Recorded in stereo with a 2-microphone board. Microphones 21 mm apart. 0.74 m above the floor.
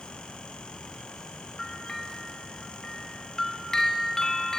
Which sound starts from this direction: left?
A bell, at 1.6 s.